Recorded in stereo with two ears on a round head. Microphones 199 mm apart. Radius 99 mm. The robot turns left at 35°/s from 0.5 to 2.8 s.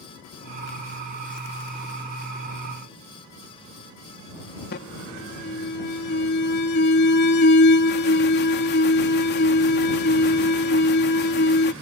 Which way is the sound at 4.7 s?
50° left (ahead or behind).